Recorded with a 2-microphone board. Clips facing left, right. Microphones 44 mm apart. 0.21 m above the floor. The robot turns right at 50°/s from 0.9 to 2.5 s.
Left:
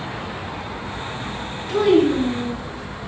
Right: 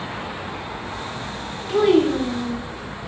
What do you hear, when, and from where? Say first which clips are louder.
1.7 s a child speaking: left 1 dB; 15° right, 1.3 m; by 2.6 s 25° left, 1.3 m